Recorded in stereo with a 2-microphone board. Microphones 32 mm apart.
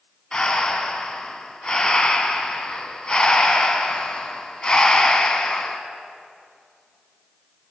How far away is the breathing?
About 0.9 m.